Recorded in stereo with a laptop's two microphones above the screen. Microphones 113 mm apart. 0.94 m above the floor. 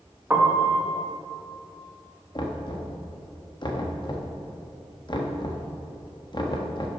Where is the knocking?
40° left (ahead or behind), 0.8 m.